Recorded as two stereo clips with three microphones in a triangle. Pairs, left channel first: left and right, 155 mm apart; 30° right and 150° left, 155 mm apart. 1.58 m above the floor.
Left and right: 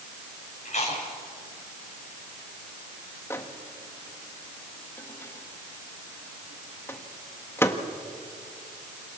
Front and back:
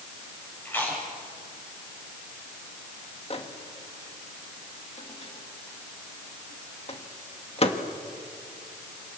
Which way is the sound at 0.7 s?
45° left.